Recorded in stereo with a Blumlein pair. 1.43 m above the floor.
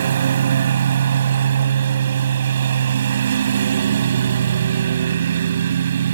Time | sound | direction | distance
0.0 | a lawn mower | 65° right | ?